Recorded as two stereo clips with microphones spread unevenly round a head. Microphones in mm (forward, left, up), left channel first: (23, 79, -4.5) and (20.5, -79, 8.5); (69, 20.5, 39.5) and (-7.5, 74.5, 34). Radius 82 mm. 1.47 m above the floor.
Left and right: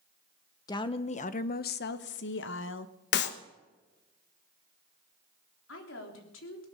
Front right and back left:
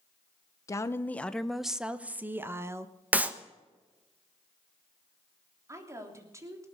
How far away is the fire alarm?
I don't hear a fire alarm.